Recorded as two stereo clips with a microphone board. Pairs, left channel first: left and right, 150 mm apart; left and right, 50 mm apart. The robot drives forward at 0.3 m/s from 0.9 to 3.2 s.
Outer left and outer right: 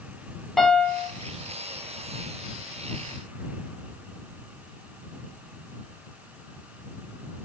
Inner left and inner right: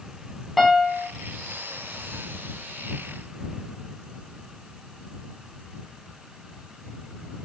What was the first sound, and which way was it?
A piano, 5° left (ahead or behind).